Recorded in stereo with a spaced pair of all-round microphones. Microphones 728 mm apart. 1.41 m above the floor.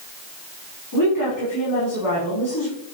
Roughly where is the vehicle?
I don't hear a vehicle.